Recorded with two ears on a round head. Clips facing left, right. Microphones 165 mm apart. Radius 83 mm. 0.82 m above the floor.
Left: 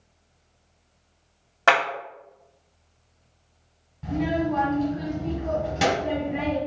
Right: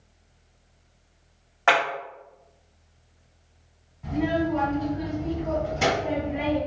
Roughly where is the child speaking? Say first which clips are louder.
Even; left.